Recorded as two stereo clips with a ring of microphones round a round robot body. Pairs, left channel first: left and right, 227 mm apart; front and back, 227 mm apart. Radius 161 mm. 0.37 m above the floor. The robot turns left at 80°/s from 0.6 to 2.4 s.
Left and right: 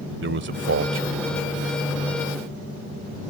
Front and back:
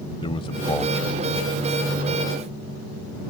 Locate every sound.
0.2 s a man speaking: 70° right; by 1.9 s 170° right